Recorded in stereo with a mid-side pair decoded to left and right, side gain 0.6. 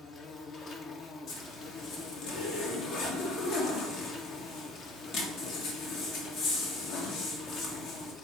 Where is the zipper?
65° left, 1.8 m.